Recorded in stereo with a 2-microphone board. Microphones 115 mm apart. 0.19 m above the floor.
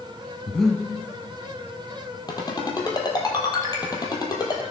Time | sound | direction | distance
0.5 | breathing | 5° left (ahead or behind) | 1.0 m
2.3 | a ringtone | 35° left (ahead or behind) | 2 m